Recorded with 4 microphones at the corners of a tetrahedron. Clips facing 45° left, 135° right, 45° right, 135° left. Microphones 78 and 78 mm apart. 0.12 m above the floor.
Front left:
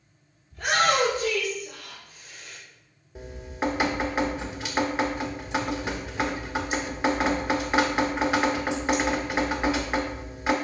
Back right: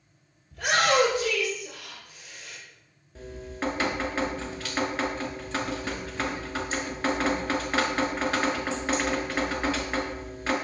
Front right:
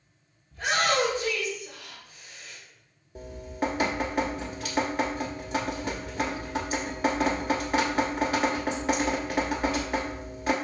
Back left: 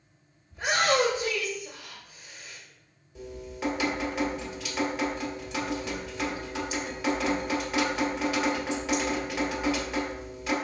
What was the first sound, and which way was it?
A shout, 155° right.